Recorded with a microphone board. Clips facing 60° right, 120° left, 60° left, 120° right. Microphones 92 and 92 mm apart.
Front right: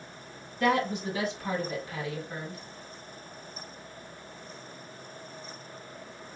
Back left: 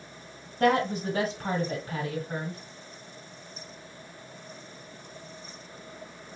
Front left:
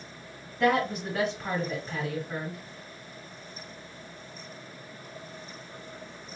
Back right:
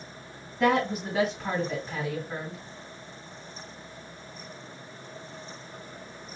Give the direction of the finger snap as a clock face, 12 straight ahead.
No finger snap in this recording.